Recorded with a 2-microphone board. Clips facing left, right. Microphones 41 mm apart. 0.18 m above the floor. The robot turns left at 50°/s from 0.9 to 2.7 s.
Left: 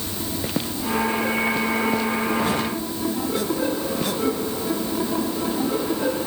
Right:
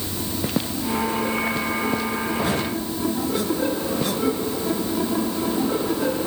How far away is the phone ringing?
No phone ringing in this recording.